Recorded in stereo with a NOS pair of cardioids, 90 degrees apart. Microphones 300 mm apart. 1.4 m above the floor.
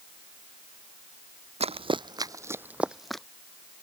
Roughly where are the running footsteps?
Ahead.